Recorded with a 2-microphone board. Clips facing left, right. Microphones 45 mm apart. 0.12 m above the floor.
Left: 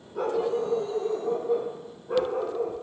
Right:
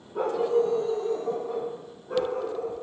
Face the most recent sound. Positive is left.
turn(degrees=30)  # may be behind; listen again after turning